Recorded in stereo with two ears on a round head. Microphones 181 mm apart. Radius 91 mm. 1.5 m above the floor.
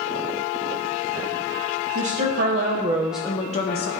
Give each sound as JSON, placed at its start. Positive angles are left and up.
{"t": 1.9, "sound": "a woman speaking", "side_deg": -60, "distance_m": 1.3}